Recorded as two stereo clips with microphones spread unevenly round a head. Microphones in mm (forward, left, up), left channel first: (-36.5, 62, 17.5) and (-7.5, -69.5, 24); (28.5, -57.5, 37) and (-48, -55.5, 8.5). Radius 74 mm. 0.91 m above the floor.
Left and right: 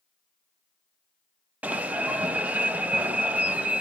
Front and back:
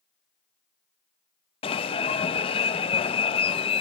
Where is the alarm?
5° left, 0.6 m.